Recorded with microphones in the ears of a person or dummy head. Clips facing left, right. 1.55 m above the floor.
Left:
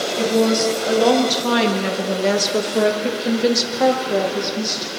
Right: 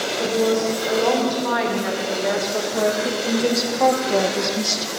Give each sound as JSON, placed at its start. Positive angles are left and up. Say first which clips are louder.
{"t": 0.2, "sound": "a woman speaking", "louder": "left 2 dB", "side_deg": 55, "distance_m": 3.0}